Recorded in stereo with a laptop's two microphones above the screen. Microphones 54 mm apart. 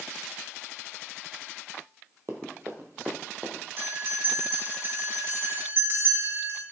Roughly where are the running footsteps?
Right.